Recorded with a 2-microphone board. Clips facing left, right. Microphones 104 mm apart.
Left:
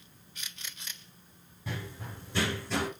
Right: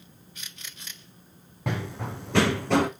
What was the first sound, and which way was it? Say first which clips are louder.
Running footsteps: right 9 dB; 70° right (ahead or behind).